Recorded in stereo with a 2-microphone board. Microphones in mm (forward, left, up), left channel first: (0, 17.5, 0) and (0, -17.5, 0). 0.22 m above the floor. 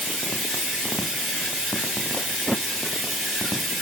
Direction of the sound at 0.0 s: Centre (ahead or behind).